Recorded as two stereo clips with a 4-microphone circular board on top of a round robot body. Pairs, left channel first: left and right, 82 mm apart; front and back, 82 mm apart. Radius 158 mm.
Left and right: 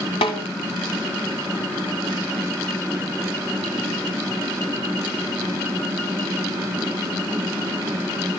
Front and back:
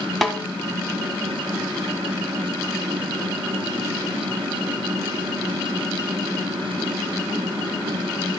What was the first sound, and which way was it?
A snare drum, 90° left.